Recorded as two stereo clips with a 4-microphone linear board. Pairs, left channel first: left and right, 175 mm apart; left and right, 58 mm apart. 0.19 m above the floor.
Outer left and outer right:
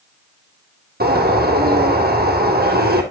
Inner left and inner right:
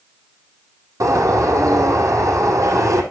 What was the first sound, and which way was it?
A bird, 65° right (ahead or behind).